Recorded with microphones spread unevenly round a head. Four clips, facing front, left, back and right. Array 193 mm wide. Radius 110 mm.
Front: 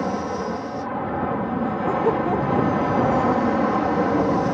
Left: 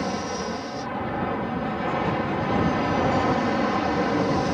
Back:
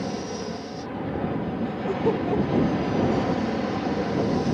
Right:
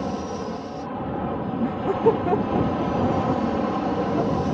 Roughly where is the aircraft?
Ahead.